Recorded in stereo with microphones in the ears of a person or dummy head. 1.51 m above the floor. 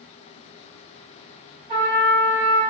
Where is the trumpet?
40° right (ahead or behind), 1.1 m.